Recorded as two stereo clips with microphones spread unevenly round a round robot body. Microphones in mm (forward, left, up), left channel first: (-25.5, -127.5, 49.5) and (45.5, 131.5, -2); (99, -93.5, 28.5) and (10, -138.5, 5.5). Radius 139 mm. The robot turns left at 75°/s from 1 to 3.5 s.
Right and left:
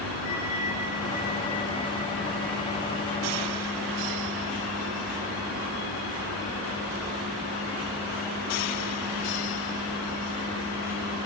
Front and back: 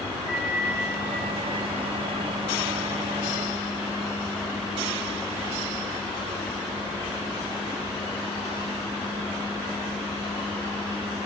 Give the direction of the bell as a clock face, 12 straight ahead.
6 o'clock.